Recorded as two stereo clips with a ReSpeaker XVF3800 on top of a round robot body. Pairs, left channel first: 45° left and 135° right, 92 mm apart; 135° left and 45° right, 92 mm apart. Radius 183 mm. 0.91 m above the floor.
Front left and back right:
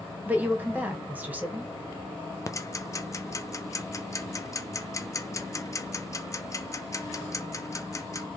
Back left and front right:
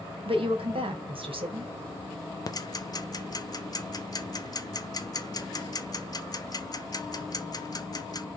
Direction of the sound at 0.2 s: 60° right.